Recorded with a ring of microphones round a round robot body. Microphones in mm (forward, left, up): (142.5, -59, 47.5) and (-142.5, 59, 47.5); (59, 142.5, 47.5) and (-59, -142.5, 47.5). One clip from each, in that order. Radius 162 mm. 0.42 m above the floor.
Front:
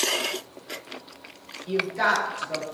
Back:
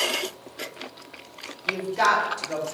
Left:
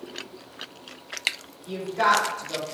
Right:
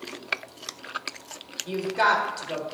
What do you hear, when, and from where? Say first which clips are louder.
1.7 s a woman speaking: back 2 dB, even; 130° right, 1.8 m